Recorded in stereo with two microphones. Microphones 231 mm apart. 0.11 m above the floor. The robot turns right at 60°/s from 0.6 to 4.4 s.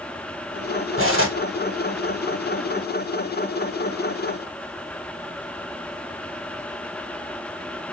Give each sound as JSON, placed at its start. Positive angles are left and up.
{"t": 1.0, "sound": "cutlery clinking", "side_deg": -65, "distance_m": 1.9}